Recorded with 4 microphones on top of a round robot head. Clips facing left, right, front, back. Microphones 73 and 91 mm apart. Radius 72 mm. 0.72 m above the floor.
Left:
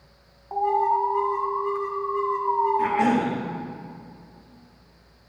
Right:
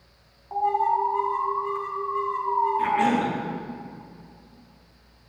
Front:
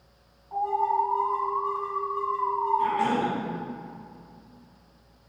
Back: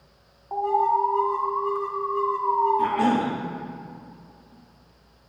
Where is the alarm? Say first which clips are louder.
Left 1 dB, back 3 dB; 160° left, 1.5 m.